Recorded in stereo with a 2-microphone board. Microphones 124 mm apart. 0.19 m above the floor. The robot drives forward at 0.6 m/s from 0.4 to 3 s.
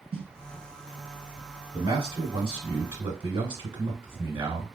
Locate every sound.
0.1 s a snare drum: 50° right (ahead or behind), 0.6 m
1.7 s a man speaking: 45° right (ahead or behind), 1.6 m